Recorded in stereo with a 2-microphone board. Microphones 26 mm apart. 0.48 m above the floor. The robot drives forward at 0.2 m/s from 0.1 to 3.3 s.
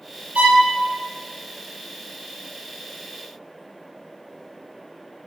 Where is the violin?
85° right, 0.8 m; by 0.7 s 80° right, 0.8 m.